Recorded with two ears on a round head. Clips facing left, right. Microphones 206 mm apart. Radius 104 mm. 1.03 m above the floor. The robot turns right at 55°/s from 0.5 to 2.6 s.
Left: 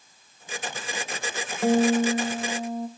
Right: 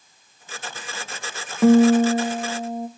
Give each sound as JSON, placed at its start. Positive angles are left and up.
{"t": 1.6, "sound": "a guitar", "azimuth_deg": -65, "distance_m": 0.6}